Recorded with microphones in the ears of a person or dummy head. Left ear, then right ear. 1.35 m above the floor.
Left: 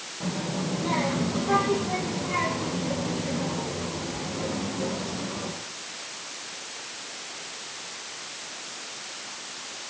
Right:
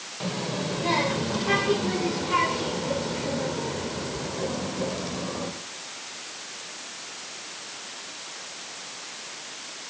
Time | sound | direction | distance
0.2 | a child speaking | 40° right (ahead or behind) | 4 m